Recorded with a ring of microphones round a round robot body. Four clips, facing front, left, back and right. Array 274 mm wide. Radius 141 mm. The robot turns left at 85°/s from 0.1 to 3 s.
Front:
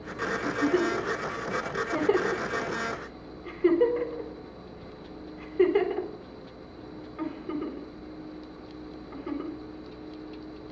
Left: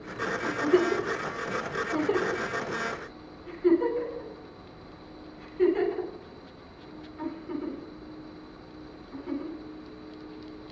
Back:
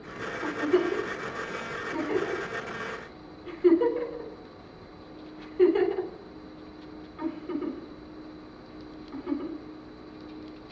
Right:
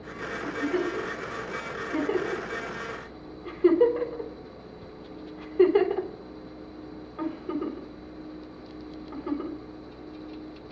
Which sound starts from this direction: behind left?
A giggle, at 0.4 s.